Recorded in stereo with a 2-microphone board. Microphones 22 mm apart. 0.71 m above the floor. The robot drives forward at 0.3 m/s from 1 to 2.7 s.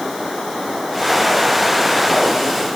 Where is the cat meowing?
No cat meowing in this recording.